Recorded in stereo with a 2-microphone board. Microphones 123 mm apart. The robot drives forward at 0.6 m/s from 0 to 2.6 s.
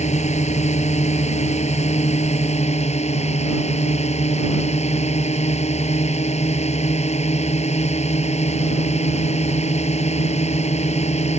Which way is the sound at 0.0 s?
65° left (ahead or behind).